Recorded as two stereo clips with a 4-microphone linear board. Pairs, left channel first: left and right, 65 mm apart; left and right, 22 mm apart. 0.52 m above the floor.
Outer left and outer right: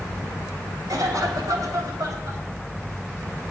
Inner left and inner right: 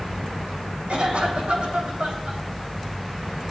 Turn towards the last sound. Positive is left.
turn(degrees=-65)  # may be behind; listen again after turning